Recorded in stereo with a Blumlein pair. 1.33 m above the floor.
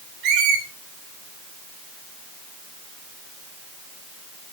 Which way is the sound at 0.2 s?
35° right.